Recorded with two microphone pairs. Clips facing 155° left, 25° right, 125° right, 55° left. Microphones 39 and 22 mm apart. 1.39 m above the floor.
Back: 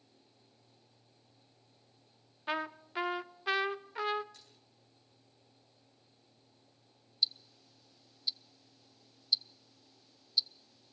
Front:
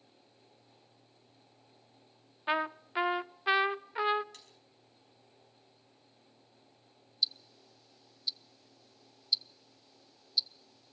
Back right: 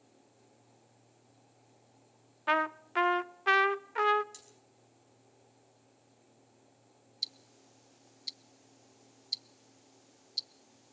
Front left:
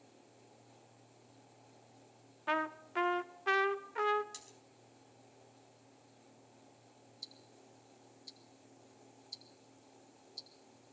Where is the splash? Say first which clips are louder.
Front 4 dB, front left 3 dB; 15° right, 4.5 m.